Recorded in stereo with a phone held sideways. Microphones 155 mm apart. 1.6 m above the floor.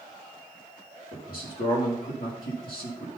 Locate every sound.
1.1 s a man speaking: 75° left (ahead or behind), 3 m